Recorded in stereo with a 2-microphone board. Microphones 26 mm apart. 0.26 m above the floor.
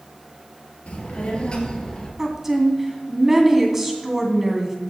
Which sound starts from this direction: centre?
A woman speaking, at 2.2 s.